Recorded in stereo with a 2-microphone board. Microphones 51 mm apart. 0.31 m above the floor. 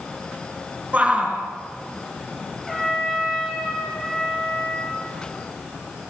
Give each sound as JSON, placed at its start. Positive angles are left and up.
{"t": 0.9, "sound": "a shout", "side_deg": -25, "distance_m": 4.0}
{"t": 2.7, "sound": "a trumpet", "side_deg": 5, "distance_m": 5.5}